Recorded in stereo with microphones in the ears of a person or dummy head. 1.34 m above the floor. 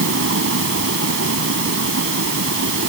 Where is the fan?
70° right (ahead or behind).